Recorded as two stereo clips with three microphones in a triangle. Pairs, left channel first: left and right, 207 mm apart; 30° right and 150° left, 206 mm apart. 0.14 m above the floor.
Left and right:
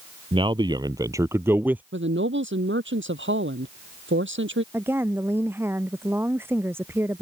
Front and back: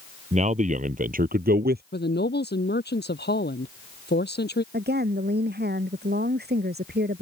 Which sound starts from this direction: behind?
A woman speaking, at 4.7 s.